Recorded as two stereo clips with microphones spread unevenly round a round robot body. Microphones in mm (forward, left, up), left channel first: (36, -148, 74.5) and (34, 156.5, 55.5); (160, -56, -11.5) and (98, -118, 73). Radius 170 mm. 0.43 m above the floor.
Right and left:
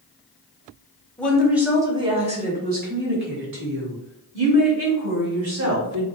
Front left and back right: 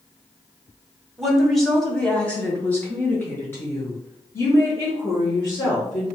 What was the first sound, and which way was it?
A woman speaking, 5° right.